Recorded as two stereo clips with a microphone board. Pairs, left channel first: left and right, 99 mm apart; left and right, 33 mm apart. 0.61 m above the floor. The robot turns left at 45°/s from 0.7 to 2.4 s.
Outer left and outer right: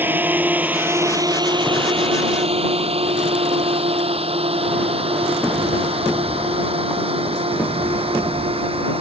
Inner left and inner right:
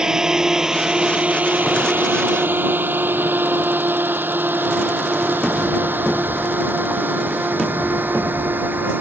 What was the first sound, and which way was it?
A drone, 20° right (ahead or behind).